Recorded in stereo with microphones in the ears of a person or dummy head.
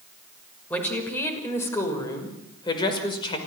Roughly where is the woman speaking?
Centre.